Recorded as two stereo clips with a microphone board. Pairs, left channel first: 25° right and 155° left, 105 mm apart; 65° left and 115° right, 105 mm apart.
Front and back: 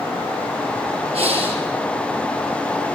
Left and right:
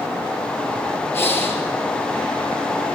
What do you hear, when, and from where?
1.1 s breathing: 135° left, 3 m